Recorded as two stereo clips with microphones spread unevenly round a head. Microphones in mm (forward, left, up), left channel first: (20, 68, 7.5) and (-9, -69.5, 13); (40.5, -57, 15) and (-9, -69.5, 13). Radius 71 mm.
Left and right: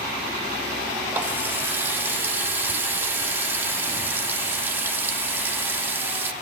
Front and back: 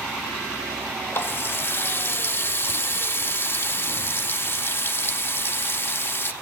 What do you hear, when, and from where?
1.1 s a running tap: 25° right, 1.4 m